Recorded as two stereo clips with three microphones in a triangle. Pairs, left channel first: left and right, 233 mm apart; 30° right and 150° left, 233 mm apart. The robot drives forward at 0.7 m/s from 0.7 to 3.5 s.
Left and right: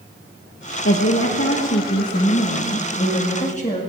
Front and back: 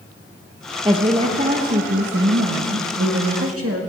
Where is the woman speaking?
80° left, 1.3 m; by 3.8 s 145° left, 2 m.